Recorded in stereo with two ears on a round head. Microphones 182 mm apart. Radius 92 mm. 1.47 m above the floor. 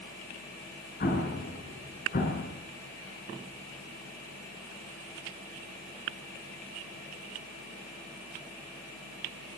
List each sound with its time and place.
1.0 s an explosion: 45° left (ahead or behind), 6 m